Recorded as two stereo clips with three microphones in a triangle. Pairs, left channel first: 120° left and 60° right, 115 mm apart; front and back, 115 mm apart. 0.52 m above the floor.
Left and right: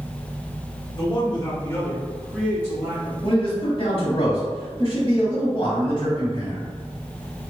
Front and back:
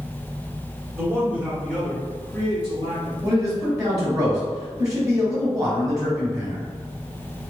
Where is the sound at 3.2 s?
130° left, 1.8 m.